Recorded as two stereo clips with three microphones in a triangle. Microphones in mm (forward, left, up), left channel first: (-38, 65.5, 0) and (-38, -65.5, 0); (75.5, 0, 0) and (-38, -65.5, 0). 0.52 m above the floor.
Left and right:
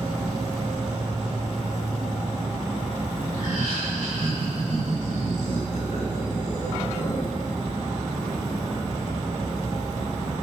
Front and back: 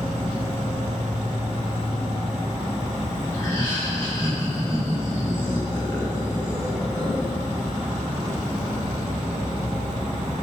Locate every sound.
0.0 s an insect: 155° right, 1.1 m
3.3 s laughter: 95° left, 1.4 m